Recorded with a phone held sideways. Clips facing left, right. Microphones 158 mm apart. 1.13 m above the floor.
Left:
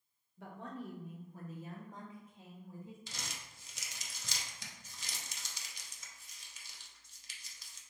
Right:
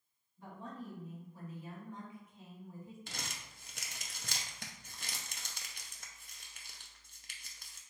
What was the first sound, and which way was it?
A woman speaking, 80° left.